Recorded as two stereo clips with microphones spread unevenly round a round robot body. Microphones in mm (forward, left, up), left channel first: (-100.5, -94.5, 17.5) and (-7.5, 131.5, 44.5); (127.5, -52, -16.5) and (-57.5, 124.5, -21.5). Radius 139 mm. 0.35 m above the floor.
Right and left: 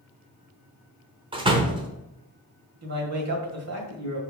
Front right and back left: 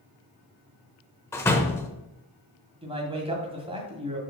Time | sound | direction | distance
1.3 | a door slam | 20° left | 0.8 m
2.8 | a man speaking | 70° left | 2.0 m